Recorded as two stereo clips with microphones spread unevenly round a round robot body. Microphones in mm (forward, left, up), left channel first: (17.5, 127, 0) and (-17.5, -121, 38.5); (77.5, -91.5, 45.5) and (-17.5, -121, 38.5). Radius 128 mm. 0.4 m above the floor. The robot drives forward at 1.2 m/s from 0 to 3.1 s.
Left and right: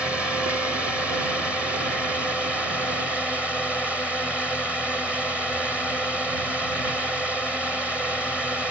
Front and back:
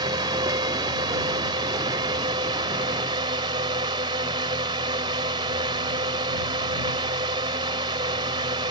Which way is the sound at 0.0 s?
170° left.